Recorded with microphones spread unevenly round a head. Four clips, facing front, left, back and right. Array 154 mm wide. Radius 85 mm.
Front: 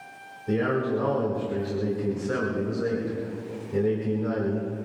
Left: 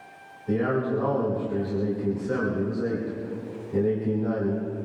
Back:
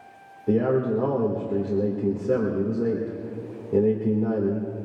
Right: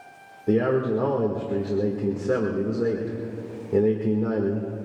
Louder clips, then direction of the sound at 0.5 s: Right 3 dB, back 3 dB; 135° right.